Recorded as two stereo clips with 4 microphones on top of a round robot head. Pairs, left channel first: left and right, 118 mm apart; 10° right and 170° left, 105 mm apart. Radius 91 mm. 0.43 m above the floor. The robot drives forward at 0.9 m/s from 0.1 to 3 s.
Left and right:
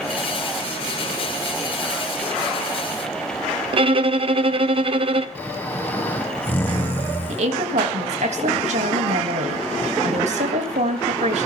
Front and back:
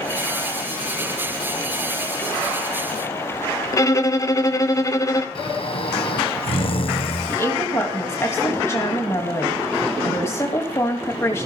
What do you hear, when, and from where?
3.7 s a violin: 65° right, 1.2 m
5.3 s snoring: 15° left, 1.9 m
7.3 s a woman speaking: 75° right, 3 m